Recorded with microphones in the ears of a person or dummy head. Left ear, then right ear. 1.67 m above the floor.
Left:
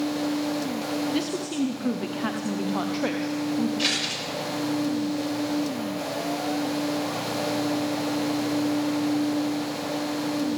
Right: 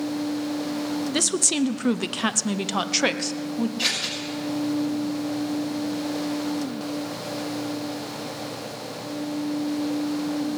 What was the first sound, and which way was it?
A woman speaking, 40° right (ahead or behind).